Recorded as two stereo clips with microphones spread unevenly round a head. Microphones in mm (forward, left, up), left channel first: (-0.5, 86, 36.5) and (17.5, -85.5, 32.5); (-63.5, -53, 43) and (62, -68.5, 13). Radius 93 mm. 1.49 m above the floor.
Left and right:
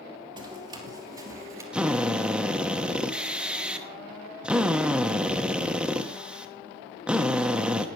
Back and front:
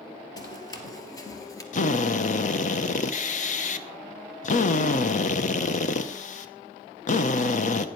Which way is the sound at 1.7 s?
170° right.